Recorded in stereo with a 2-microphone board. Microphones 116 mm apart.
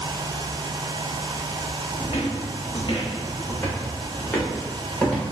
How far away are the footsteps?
About 0.7 m.